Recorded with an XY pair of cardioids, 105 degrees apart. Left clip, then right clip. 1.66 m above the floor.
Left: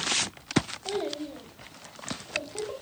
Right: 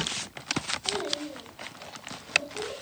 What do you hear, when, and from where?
0.8 s a child speaking: 45° left, 3 m; by 2.7 s 65° left, 3.5 m